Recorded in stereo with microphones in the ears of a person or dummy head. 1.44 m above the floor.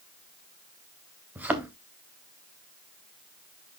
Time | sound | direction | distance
1.4 | a thud | 10° right (ahead or behind) | 1.2 m